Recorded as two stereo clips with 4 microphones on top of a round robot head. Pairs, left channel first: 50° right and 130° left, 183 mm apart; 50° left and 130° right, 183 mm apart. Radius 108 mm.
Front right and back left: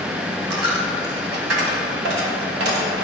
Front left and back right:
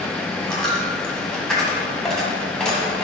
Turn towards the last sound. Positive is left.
turn(degrees=135)